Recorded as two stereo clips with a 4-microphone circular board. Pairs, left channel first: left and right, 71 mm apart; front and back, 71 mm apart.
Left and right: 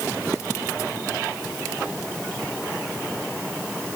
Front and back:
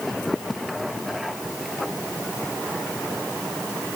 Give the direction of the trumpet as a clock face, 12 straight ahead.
No trumpet in this recording.